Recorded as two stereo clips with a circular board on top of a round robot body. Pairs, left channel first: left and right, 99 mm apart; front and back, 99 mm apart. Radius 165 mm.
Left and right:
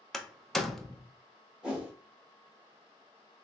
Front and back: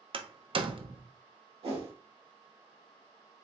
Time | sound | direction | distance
0.1 | a door slam | 175° left | 0.7 m
1.6 | a whoosh | 175° right | 1.8 m